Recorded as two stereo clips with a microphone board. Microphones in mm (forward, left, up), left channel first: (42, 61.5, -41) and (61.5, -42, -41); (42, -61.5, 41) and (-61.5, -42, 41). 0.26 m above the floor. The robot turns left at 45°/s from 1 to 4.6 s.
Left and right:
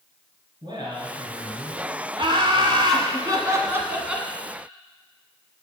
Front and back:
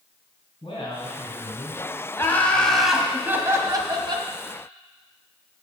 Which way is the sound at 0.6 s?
40° right.